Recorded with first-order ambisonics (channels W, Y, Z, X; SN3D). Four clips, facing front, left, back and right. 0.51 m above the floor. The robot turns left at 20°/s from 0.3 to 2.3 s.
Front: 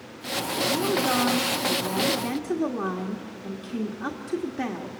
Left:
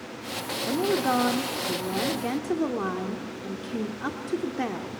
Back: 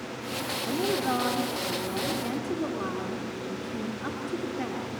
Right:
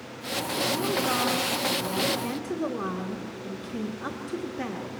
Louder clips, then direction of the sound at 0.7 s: Left 4 dB, front 3 dB; 95° left.